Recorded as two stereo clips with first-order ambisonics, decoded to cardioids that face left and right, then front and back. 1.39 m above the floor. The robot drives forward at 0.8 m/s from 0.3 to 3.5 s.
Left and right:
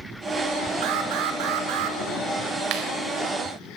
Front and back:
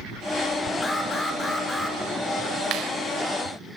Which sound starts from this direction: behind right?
A clap, at 2.7 s.